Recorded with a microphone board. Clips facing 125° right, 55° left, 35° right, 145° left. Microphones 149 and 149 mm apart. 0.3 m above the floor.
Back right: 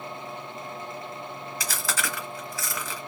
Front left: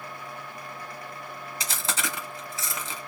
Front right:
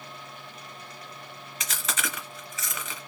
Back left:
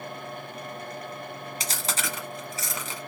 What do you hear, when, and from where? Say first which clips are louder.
1.6 s chewing: even, even; 110° left, 1.0 m